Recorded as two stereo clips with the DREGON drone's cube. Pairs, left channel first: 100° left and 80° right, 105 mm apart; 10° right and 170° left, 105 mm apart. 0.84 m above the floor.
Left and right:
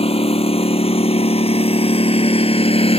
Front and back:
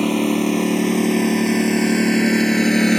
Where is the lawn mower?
80° left; by 3.0 s 75° left.